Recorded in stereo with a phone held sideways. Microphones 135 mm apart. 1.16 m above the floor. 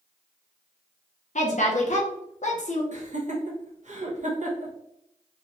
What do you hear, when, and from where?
1.4 s a woman speaking: 60° left (ahead or behind), 0.7 m
2.9 s laughter: 60° right (ahead or behind), 1.0 m